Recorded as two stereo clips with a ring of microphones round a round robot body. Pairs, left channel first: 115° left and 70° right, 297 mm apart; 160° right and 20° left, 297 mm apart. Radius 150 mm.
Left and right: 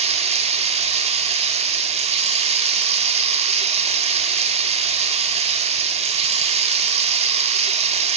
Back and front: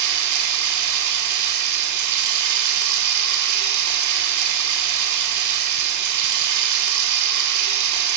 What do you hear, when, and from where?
0.0 s running water: straight ahead, 1.1 m